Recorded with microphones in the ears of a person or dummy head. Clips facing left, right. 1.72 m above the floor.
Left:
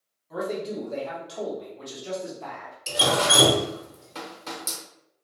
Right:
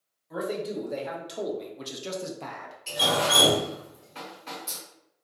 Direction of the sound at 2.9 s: 70° left (ahead or behind).